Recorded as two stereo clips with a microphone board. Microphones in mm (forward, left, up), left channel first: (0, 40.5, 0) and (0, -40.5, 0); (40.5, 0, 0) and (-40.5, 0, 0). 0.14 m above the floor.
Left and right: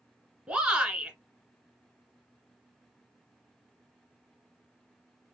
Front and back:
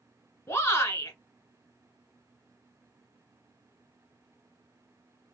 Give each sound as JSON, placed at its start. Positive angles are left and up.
{"t": 0.5, "sound": "a shout", "azimuth_deg": -20, "distance_m": 1.3}